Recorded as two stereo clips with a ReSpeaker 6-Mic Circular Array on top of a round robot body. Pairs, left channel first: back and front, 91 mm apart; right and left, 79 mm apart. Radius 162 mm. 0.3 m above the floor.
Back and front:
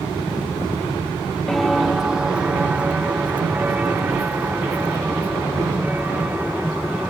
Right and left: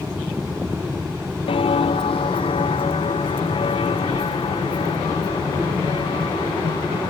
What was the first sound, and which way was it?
Footsteps, 95° right.